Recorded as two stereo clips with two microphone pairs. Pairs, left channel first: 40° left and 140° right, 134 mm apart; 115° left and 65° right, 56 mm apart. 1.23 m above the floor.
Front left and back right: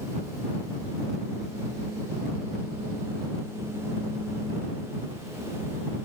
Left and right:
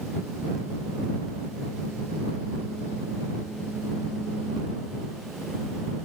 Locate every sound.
Only background noise.